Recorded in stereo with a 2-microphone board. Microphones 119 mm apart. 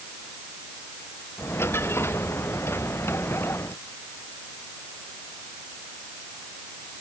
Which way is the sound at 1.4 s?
20° left (ahead or behind).